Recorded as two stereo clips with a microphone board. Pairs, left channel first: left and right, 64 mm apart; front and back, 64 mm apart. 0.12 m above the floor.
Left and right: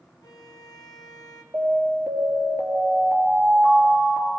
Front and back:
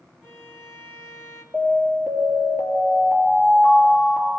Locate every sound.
0.2 s a violin: 105° left, 1.9 m
1.5 s an alarm: 145° right, 3.5 m